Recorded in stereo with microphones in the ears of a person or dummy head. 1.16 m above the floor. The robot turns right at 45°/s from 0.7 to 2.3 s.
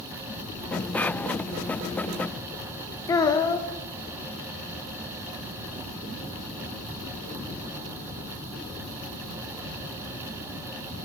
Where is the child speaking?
20° left (ahead or behind), 0.6 m.